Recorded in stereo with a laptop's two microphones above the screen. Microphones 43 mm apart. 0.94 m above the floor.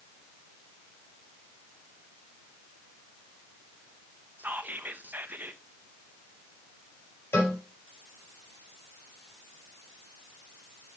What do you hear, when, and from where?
4.4 s whispering: 45° right (ahead or behind), 0.7 m
7.3 s a cowbell: 65° left (ahead or behind), 4.5 m